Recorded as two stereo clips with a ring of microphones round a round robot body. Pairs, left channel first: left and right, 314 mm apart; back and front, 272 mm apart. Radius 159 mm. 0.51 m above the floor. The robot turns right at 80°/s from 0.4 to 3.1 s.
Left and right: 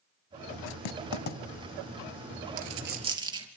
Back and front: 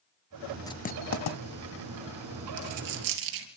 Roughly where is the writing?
Left.